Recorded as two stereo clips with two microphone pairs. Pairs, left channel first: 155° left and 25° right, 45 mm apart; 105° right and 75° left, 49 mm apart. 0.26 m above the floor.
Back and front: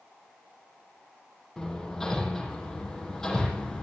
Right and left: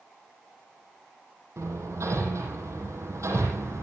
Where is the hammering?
75° left, 7.5 m.